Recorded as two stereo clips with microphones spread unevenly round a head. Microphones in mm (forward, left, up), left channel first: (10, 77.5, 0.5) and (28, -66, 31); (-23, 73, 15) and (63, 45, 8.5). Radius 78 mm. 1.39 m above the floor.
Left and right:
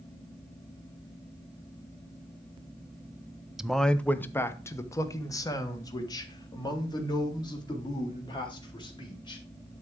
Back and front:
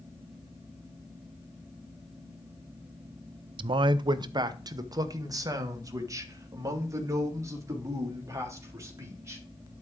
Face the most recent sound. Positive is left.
turn(degrees=40)